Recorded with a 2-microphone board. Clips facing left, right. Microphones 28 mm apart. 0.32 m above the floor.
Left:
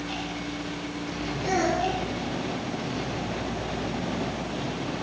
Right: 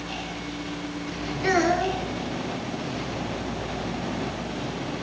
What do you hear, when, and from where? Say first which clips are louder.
1.4 s a child speaking: right 3 dB; 70° right (ahead or behind), 3 m